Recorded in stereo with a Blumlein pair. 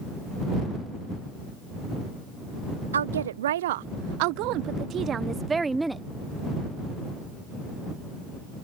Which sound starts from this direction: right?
A woman speaking, at 2.9 s.